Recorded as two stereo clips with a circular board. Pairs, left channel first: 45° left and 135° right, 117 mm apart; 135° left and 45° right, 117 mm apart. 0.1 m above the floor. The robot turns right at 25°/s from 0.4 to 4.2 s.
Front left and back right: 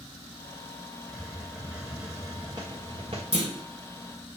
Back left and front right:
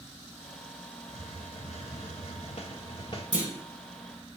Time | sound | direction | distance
1.1 | a hiss | 135° left | 1.9 m
3.3 | a clunk | 125° right | 4 m